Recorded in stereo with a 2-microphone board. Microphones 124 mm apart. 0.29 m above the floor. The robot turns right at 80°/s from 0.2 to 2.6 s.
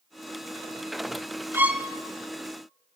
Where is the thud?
No thud in this recording.